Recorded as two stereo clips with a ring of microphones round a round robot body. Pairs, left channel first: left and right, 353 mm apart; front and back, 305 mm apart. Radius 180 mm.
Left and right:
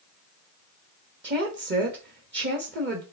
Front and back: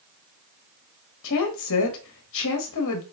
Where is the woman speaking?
35° right, 1.5 m.